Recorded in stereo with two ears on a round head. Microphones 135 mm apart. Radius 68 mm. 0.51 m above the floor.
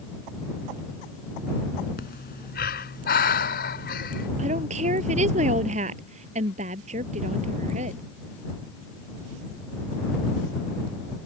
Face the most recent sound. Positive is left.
turn(degrees=-50)  # may be behind; listen again after turning